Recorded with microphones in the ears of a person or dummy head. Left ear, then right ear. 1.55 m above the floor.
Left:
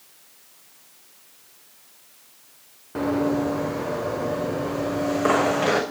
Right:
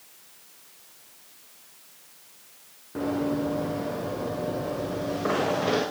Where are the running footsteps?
40° left (ahead or behind), 4 m; by 5.8 s 45° left (ahead or behind), 5.5 m.